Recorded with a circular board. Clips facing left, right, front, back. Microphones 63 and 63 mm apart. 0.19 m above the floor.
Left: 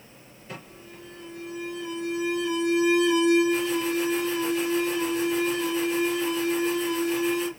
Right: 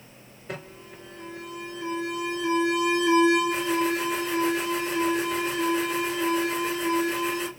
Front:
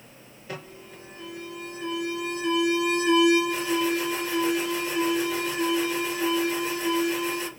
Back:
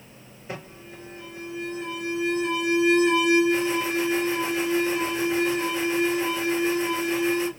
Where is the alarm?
115° right, 4 m.